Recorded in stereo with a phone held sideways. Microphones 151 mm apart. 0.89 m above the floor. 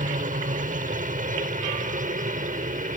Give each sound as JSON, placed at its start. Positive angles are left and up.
{"t": 0.0, "sound": "a helicopter", "side_deg": -60}